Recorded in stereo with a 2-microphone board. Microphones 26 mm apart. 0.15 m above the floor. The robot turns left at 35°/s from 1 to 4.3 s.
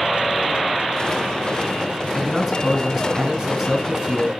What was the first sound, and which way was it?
A man speaking, 15° right (ahead or behind).